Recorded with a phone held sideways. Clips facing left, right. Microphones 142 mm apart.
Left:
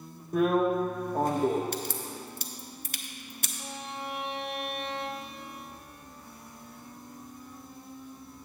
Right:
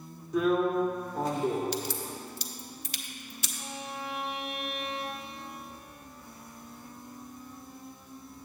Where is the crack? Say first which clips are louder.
Right 1 dB; 50° left (ahead or behind), 0.6 m.